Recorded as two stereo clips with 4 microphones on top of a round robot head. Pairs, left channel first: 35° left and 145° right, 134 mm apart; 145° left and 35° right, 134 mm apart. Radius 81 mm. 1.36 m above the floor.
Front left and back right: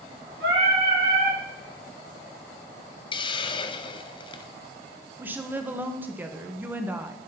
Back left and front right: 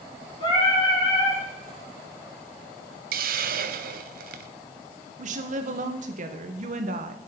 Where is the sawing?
I don't hear sawing.